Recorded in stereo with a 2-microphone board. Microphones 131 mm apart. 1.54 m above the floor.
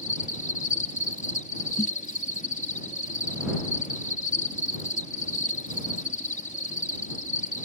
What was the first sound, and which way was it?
An insect, 80° left.